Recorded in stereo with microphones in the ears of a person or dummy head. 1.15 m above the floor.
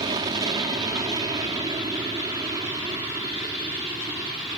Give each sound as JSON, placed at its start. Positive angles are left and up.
{"t": 0.0, "sound": "an aircraft", "side_deg": -25}